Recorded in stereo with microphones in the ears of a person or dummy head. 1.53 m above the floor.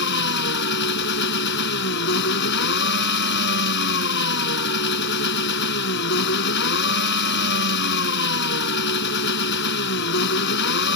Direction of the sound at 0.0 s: 75° left (ahead or behind).